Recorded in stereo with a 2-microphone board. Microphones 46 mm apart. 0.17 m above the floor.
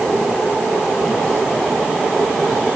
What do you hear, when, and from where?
Only background noise.